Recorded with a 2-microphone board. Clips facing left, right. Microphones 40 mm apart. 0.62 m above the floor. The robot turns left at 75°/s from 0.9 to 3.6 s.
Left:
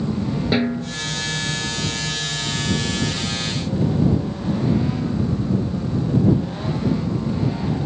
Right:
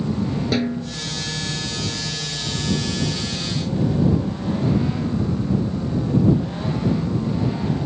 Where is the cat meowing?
No cat meowing in this recording.